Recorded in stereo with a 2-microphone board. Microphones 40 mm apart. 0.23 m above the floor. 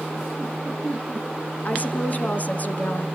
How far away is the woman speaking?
About 2.5 m.